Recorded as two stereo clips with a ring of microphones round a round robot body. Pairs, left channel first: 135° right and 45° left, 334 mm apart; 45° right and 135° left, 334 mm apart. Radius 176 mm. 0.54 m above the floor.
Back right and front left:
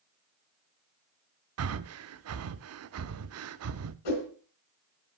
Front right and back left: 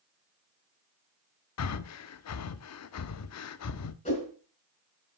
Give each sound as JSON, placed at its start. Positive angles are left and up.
{"t": 1.6, "sound": "breathing", "azimuth_deg": 0, "distance_m": 0.6}
{"t": 4.0, "sound": "a whoosh", "azimuth_deg": -120, "distance_m": 3.5}